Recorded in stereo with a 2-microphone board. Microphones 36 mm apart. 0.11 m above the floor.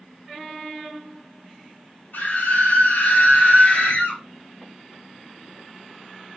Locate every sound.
2.1 s a scream: 55° left (ahead or behind), 3 m; by 4.2 s 40° left (ahead or behind), 1.9 m